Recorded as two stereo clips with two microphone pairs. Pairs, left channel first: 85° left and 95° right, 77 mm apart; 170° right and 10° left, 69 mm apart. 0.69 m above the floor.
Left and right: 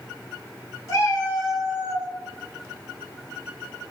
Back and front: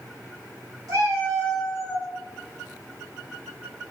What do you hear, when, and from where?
0.9 s a cat meowing: 35° left, 1.6 m; by 2.1 s 60° left, 1.0 m